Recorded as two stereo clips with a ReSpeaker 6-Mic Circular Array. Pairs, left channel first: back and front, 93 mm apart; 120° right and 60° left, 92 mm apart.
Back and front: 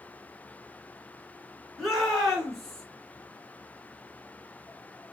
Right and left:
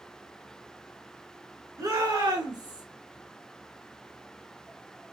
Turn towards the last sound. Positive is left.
turn(degrees=95)